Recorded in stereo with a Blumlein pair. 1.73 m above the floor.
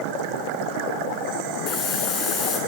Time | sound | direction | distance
1.7 | a hiss | 25° left | 6.5 m